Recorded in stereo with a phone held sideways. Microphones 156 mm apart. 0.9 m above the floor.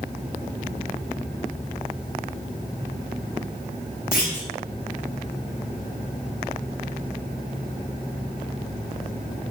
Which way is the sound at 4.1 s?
65° left (ahead or behind).